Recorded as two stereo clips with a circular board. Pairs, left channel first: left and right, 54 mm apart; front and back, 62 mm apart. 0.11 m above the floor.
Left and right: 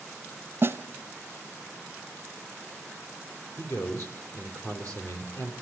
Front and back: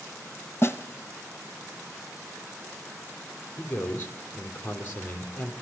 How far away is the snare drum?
About 1.0 m.